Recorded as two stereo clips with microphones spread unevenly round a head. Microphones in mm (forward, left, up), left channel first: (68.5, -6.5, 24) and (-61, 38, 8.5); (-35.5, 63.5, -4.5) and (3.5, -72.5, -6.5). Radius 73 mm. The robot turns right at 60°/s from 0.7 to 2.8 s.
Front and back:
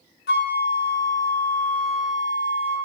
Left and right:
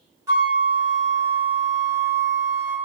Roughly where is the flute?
Ahead.